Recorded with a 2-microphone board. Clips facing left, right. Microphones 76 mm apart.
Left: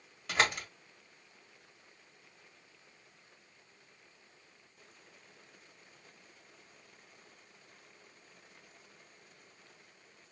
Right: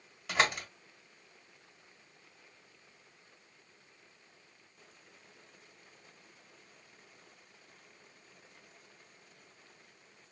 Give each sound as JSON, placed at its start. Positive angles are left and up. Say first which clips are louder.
{"t": 0.3, "sound": "a door slam", "louder": "right 1 dB", "side_deg": -5, "distance_m": 1.6}